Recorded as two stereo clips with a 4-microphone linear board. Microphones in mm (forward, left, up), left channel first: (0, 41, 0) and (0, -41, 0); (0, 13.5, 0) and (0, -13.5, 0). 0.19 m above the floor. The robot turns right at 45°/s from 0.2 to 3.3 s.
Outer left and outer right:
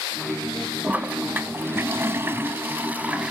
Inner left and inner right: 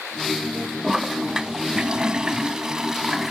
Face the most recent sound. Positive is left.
turn(degrees=-15)  # may be behind; listen again after turning